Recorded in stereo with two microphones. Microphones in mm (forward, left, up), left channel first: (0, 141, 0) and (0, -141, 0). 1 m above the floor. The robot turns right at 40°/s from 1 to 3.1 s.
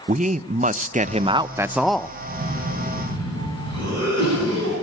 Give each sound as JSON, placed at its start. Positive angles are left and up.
{"t": 0.1, "sound": "a man speaking", "azimuth_deg": -35, "distance_m": 0.6}
{"t": 2.2, "sound": "a cough", "azimuth_deg": -105, "distance_m": 9.5}